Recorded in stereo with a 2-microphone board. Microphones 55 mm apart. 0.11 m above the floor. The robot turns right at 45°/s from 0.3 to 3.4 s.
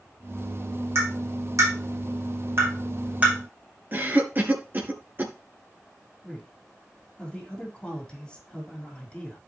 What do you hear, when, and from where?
0.9 s tapping: 55° right (ahead or behind), 6 m; by 3.3 s 15° right (ahead or behind), 6 m
3.9 s a cough: 40° right (ahead or behind), 1.5 m
6.2 s a man speaking: 15° left (ahead or behind), 4.5 m